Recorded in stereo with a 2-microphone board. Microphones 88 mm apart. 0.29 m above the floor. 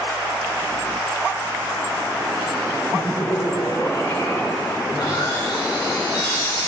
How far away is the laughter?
About 4 m.